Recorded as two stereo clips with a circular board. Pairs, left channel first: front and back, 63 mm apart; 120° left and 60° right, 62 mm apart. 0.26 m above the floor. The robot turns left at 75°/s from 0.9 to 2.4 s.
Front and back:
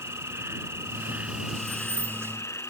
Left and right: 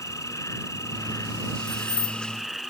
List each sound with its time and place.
0.0 s an insect: 145° left; by 2.7 s 30° left
1.7 s keys jangling: 140° left; by 2.2 s 105° left